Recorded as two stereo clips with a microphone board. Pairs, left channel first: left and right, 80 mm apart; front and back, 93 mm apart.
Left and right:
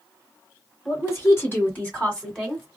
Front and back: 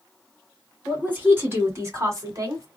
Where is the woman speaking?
115° left, 1.8 m; by 2.7 s straight behind, 1.6 m.